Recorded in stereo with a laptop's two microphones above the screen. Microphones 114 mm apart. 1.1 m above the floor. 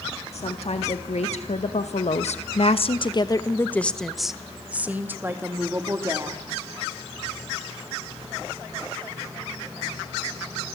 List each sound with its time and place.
0.3 s a woman speaking: 65° left (ahead or behind), 2 m; by 6.4 s 30° right (ahead or behind), 2.5 m